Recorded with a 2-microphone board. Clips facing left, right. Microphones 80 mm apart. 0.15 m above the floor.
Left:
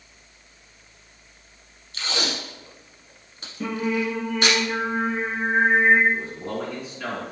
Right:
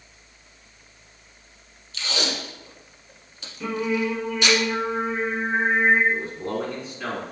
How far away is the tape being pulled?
About 1.2 m.